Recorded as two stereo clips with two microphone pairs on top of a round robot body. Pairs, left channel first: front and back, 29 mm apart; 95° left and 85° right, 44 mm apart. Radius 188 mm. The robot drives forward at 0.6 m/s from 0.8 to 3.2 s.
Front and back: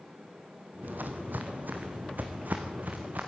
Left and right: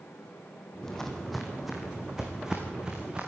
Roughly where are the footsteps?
Behind.